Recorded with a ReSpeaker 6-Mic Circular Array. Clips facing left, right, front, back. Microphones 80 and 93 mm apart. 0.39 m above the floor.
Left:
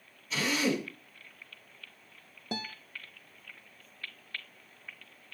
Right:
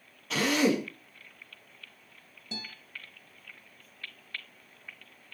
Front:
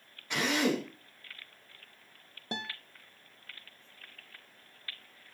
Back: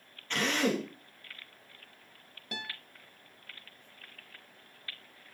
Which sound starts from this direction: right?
A drill, at 0.3 s.